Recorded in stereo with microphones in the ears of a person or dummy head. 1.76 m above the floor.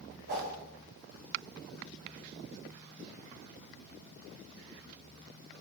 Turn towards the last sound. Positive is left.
turn(degrees=-45)  # may be behind; listen again after turning